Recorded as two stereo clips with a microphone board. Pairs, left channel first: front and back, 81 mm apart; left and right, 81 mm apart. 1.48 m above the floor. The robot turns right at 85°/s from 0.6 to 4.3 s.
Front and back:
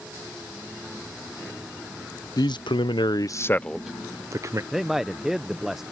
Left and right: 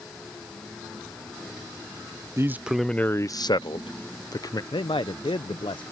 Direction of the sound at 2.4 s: 35° right.